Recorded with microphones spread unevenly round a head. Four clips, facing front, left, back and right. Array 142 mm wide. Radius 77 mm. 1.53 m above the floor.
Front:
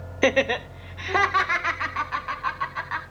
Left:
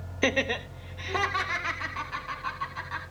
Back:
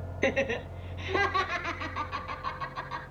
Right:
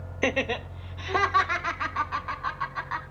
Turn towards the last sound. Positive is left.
turn(degrees=-30)